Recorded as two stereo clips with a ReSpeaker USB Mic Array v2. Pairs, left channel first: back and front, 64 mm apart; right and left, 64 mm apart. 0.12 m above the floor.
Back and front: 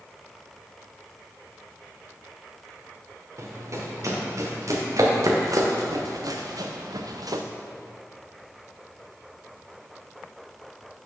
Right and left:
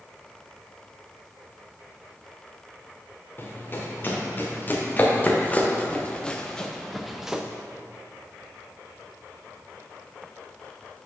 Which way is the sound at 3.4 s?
35° right.